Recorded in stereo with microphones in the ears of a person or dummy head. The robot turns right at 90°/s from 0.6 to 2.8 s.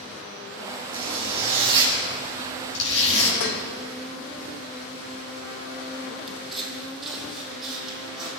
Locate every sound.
0.9 s a zipper: 100° right, 5 m; by 3.3 s 70° left, 5 m
3.4 s dishes clattering: 55° left (ahead or behind), 1.1 m
6.3 s footsteps: centre (ahead or behind), 3 m; by 8.3 s 5° right (ahead or behind), 4.5 m